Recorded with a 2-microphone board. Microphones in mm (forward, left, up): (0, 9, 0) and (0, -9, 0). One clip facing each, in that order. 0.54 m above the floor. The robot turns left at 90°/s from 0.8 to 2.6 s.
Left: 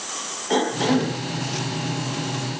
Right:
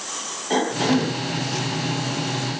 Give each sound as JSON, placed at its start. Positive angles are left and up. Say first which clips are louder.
{"t": 0.5, "sound": "a cough", "louder": "even", "side_deg": 5, "distance_m": 2.0}